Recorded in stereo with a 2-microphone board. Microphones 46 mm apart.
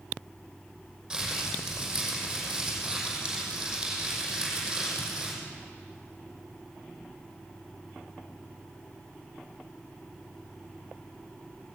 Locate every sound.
1.1 s crumpling: 10° right (ahead or behind), 5.5 m